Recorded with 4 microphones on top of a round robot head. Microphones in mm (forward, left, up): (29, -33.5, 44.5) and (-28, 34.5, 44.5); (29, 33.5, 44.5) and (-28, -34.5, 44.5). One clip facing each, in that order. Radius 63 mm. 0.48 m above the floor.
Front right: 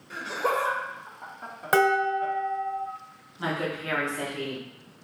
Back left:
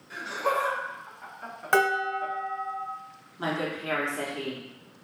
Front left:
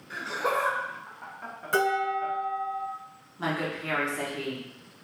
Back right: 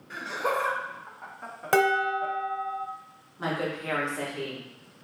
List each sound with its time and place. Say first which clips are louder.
0.1 s laughter: front right 1 dB, even; 35° right, 1.5 m; by 2.3 s 175° left, 1.0 m
1.7 s dishes clattering: front right 3 dB, back right 2 dB; 130° right, 1.2 m
3.4 s a woman speaking: even, even; 135° left, 1.3 m